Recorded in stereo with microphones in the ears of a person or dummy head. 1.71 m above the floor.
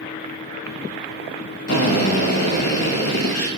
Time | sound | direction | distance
1.7 | a drill | 70° left (ahead or behind) | 2 m